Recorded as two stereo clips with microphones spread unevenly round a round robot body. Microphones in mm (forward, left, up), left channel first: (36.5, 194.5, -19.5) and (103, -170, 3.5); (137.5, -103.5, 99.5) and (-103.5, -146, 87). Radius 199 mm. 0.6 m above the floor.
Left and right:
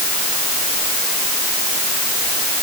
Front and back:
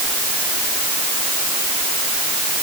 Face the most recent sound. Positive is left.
No sound to turn to.